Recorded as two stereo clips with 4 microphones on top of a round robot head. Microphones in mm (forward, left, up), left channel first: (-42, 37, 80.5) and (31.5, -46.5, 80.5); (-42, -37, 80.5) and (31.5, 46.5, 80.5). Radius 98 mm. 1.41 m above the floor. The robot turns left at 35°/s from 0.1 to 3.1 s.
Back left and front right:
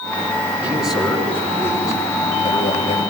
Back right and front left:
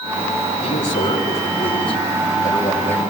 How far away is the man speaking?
About 9 m.